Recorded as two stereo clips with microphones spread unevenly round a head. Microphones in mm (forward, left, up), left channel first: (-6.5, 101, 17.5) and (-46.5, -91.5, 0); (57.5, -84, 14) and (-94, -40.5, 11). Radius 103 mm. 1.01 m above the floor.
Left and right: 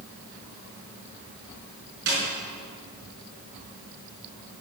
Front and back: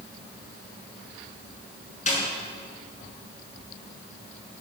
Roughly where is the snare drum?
Ahead right.